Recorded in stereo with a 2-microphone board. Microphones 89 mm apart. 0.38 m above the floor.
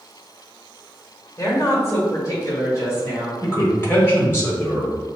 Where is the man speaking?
30° left (ahead or behind), 1.3 m.